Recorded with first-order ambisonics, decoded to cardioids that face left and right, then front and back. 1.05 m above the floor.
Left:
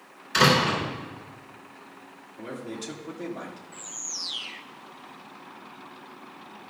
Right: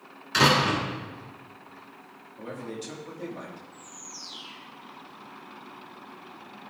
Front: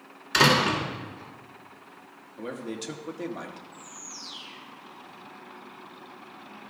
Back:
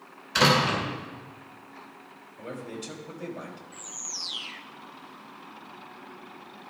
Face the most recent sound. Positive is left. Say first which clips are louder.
# left 7 dB, back 5 dB
turn(degrees=125)